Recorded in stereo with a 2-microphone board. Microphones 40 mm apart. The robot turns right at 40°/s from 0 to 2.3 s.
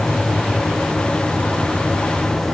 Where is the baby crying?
No baby crying in this recording.